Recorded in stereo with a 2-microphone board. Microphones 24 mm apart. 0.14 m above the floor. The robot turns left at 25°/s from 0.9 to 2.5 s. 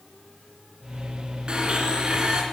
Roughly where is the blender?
Right.